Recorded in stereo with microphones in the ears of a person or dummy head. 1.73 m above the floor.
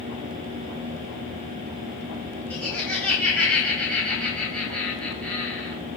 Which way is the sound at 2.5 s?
5° left (ahead or behind).